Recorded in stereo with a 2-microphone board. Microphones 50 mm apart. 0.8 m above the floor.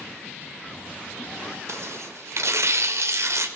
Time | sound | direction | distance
1.7 | tearing paper | 70° right (ahead or behind) | 1.0 m